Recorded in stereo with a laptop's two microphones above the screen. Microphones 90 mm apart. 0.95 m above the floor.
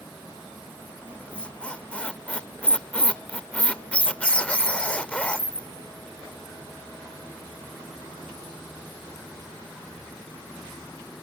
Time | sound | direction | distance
1.1 | a squeak | 15° left (ahead or behind) | ?